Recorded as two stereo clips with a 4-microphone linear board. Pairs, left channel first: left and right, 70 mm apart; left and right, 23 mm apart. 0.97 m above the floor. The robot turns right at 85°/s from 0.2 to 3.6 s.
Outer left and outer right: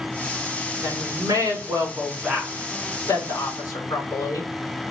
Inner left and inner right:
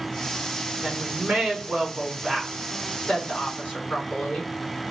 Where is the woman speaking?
115° right, 3 m; by 4.5 s 125° left, 3 m.